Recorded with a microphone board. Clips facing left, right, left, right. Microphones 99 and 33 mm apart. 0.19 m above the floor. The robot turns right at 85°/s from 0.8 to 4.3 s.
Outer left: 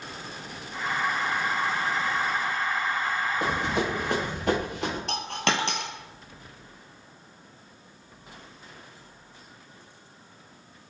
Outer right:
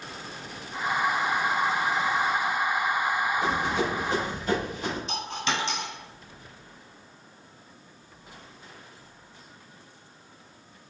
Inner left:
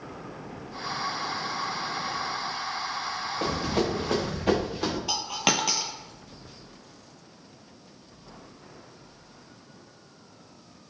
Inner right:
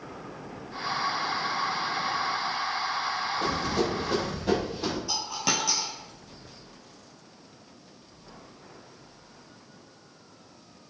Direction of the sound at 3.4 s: 70° left (ahead or behind).